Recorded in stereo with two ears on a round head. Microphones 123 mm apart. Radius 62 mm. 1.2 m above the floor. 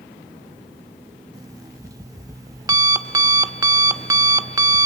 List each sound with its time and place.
1.3 s an alarm clock: 25° right (ahead or behind), 0.7 m